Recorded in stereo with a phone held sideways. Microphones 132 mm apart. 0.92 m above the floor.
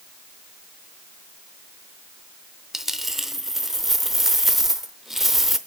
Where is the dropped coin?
Centre (ahead or behind), 0.7 m.